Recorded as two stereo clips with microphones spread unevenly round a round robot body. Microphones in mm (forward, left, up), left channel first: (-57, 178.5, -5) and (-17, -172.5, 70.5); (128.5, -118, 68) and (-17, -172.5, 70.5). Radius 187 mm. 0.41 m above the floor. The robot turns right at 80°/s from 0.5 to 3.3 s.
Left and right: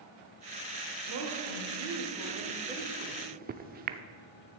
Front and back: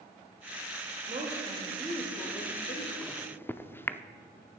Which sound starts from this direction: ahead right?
A microwave, at 3.0 s.